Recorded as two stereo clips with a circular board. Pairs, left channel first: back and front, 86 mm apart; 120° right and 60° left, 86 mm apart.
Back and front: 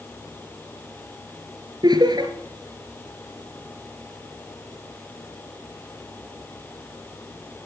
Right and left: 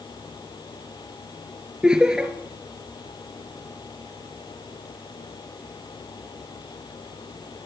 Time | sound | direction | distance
1.8 | laughter | 25° right | 2.5 m